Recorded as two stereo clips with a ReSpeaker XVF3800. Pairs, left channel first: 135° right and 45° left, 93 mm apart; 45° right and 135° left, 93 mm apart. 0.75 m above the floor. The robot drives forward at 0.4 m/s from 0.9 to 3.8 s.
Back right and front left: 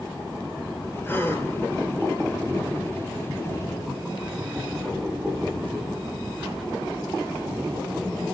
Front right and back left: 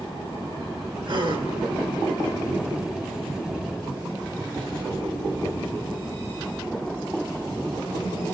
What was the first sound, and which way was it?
A gasp, 160° left.